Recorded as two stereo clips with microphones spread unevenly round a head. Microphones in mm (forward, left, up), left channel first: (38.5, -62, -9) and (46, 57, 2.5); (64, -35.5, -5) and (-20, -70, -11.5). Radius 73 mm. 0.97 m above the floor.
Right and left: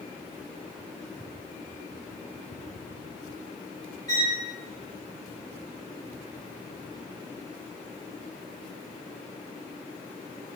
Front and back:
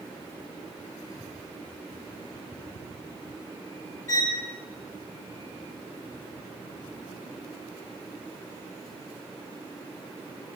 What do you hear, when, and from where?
4.1 s a violin: 30° right, 3 m